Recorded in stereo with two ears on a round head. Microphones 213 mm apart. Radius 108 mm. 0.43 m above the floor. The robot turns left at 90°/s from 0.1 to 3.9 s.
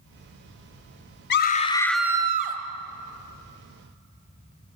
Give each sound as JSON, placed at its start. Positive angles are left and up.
{"t": 1.3, "sound": "a scream", "azimuth_deg": 60, "distance_m": 3.0}